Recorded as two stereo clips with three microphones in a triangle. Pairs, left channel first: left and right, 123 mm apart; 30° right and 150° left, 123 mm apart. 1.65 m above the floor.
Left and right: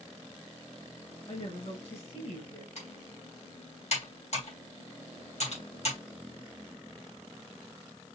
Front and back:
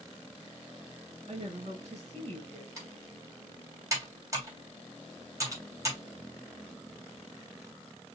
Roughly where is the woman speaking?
Behind left.